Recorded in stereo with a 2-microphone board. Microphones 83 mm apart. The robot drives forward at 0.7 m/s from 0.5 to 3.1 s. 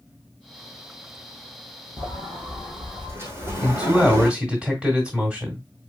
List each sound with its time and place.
2.0 s a sliding door: 40° right (ahead or behind), 2 m; by 4.3 s 30° right (ahead or behind), 3 m
3.6 s a man speaking: 10° right (ahead or behind), 1.7 m